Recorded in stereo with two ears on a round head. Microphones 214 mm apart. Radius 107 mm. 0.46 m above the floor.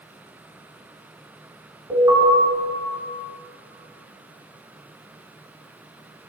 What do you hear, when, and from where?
1.9 s an alarm: 15° right (ahead or behind), 3.5 m